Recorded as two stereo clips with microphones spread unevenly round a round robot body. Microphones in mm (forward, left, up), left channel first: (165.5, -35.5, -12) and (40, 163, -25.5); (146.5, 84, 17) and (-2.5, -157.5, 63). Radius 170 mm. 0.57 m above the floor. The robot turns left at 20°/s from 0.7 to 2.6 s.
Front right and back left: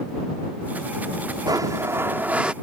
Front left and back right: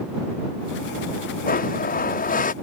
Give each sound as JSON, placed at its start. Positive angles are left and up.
{"t": 1.5, "sound": "a blender", "azimuth_deg": 65}